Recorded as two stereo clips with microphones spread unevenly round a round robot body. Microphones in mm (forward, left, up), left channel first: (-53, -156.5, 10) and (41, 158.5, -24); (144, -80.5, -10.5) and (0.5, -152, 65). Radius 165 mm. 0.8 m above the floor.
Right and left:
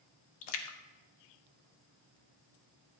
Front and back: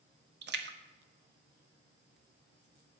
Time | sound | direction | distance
0.4 | a splash | 120° right | 1.3 m